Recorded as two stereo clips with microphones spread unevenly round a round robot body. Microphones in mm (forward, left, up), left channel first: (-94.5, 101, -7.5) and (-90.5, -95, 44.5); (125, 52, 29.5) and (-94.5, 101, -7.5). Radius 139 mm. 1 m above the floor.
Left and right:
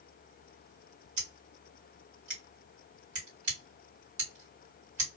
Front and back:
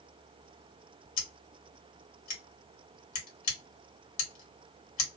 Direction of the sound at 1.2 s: 40° right.